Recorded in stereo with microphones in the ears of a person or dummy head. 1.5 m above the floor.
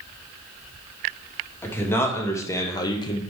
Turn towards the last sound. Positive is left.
turn(degrees=25)  # may be behind; listen again after turning